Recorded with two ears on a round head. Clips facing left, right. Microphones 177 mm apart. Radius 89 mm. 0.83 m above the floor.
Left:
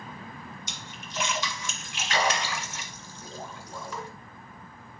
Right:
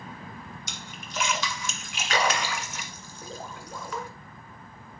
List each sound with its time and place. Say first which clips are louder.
0.7 s a splash: right 2 dB; 50° right (ahead or behind), 1.8 m